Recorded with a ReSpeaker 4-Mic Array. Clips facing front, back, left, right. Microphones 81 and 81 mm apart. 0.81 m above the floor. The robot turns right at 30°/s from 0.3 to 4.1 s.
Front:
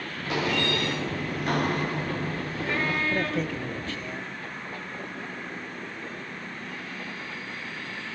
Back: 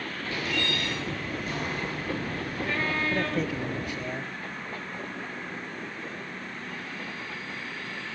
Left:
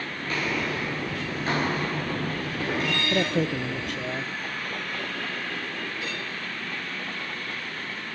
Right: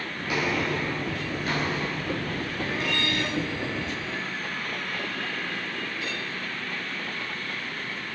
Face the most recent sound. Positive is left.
turn(degrees=115)